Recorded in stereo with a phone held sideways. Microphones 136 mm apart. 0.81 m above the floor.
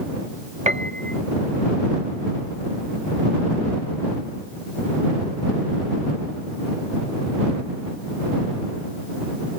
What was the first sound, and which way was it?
A piano, 55° right (ahead or behind).